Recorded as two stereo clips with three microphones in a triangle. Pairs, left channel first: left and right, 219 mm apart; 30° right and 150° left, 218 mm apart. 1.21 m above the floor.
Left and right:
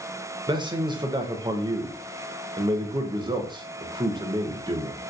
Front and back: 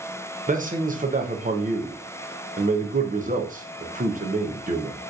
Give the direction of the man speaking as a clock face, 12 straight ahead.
5 o'clock.